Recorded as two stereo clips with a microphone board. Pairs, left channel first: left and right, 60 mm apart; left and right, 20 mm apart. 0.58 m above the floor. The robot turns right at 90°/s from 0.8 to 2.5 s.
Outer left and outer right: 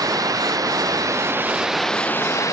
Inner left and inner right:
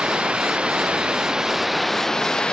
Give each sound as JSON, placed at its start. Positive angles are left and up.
{"t": 0.0, "sound": "running water", "azimuth_deg": -90}